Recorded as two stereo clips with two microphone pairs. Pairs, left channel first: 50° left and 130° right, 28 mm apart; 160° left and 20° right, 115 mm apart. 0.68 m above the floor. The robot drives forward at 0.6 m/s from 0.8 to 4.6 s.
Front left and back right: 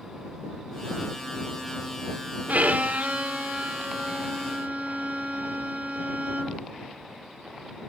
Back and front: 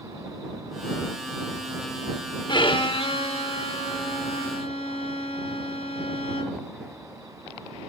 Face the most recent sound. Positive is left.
turn(degrees=-170)